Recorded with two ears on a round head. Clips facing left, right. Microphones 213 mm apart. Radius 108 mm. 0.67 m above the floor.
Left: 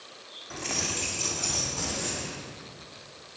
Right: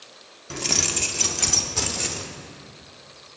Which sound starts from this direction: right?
Keys jangling, at 0.5 s.